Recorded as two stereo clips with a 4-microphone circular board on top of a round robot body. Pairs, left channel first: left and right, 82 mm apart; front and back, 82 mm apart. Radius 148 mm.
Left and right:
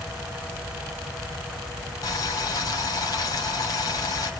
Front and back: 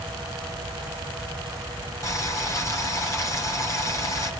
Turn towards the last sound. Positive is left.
turn(degrees=50)